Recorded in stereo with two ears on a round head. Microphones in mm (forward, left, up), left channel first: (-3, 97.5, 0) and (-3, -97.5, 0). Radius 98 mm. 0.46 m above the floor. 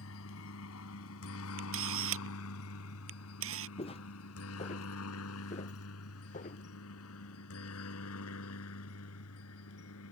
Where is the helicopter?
70° left (ahead or behind); by 10.1 s 75° left (ahead or behind).